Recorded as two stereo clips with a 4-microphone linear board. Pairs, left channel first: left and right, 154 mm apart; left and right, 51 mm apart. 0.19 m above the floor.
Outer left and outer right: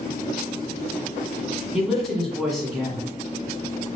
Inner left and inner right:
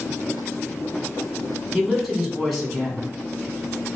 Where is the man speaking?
Centre (ahead or behind), 1.6 m.